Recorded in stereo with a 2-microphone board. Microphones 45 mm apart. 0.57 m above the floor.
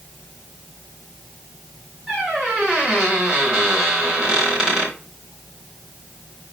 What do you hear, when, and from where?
2.1 s a squeak: 15° right (ahead or behind), 5 m